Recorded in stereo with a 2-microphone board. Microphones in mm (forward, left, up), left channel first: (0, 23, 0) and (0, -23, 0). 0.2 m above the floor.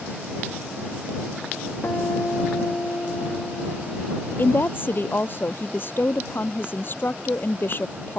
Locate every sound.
1.8 s a guitar: 55° left (ahead or behind)
4.4 s a woman speaking: 45° left (ahead or behind)